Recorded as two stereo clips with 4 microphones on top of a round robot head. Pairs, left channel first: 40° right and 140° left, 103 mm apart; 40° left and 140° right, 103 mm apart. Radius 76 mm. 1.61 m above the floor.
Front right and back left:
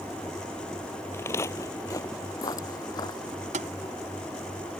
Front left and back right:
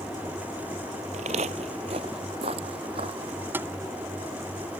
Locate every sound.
1.1 s footsteps: 110° right; by 3.4 s 95° right
3.5 s tapping: 150° left